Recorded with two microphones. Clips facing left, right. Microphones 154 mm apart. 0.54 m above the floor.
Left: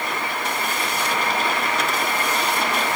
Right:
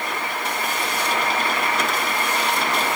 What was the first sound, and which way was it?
Only background noise.